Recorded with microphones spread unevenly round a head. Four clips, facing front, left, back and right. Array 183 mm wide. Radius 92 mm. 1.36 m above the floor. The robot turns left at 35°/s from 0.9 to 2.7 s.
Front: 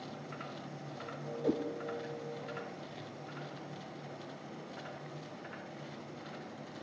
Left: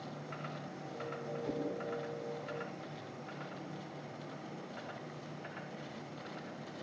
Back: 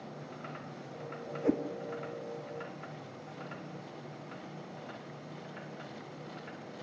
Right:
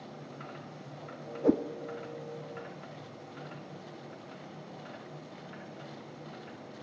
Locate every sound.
1.4 s a whoosh: 95° right, 0.6 m; by 1.6 s 100° right, 0.6 m